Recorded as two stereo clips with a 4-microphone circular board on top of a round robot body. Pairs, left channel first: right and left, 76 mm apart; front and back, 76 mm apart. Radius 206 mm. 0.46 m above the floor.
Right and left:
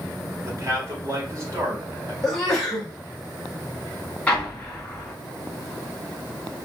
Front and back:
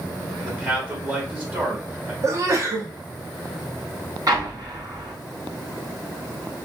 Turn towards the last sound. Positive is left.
turn(degrees=-165)